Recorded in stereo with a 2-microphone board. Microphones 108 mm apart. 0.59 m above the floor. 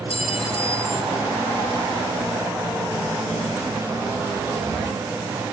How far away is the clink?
About 0.7 m.